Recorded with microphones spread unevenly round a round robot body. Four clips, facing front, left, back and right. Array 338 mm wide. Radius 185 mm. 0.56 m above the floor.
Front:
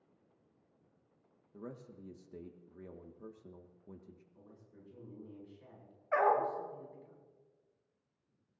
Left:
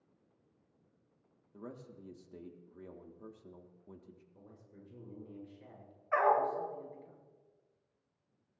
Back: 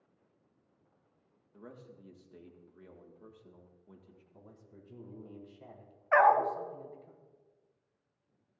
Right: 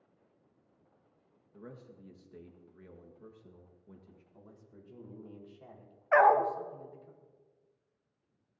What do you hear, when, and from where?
1.5 s a man speaking: 40° left, 1.4 m
4.3 s a man speaking: straight behind, 4.5 m
6.1 s a dog barking: 130° right, 1.3 m